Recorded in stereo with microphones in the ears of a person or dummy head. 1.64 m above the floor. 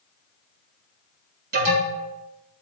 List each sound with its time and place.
1.5 s an alarm: 50° right (ahead or behind), 4.5 m